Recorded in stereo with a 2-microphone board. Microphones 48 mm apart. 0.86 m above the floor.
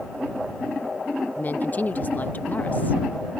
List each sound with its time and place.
1.4 s a woman speaking: 35° left (ahead or behind)